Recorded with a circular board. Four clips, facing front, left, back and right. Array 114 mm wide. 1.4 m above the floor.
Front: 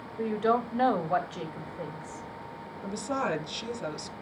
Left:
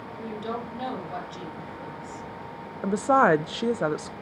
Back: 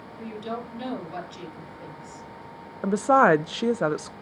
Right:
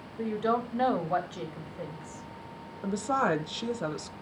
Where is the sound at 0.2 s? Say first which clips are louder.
Right 5 dB, front 8 dB; 25° right, 2.5 m.